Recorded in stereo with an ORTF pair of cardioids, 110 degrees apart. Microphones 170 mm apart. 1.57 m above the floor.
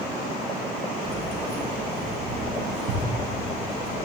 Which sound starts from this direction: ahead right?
Keys jangling, at 1.0 s.